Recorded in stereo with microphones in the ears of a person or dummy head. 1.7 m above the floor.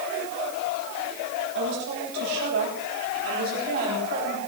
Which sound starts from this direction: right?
A woman speaking, at 1.6 s.